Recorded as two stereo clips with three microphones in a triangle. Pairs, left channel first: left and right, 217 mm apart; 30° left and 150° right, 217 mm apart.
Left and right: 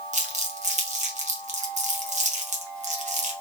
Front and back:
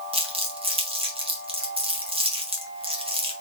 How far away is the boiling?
I don't hear boiling.